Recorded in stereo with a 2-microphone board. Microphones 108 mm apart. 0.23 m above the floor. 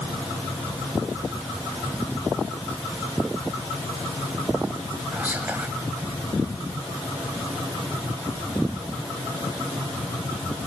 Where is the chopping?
No chopping in this recording.